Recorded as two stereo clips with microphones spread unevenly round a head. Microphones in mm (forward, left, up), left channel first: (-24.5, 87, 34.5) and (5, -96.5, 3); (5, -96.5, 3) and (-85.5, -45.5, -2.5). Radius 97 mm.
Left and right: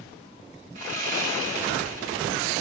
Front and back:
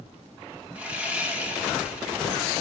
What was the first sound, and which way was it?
Sawing, 130° right.